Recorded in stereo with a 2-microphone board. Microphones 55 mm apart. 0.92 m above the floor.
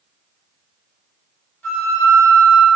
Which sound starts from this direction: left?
A flute, at 1.6 s.